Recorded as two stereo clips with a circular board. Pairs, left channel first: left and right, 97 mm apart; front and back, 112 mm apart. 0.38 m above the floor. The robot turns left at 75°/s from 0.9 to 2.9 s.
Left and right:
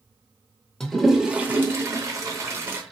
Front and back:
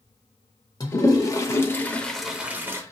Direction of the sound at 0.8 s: 10° left.